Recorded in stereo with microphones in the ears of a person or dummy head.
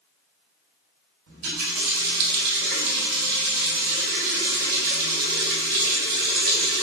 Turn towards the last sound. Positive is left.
turn(degrees=-50)  # may be behind; listen again after turning